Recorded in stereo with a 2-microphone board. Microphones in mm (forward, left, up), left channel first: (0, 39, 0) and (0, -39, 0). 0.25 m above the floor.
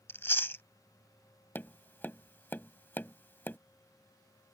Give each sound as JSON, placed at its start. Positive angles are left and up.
{"t": 0.1, "sound": "chewing", "side_deg": 30}
{"t": 1.6, "sound": "tapping", "side_deg": 25}